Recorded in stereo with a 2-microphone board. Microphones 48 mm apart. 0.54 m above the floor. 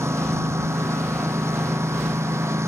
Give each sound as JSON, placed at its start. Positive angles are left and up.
{"t": 0.0, "sound": "a lawn mower", "side_deg": -75}